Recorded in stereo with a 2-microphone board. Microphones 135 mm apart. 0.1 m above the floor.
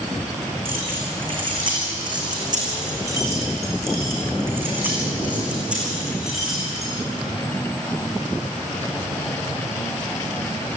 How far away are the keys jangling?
About 5 m.